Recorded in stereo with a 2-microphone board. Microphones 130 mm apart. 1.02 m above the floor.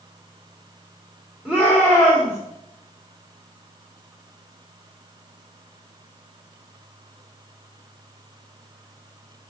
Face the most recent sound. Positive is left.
turn(degrees=-5)  # may be behind; listen again after turning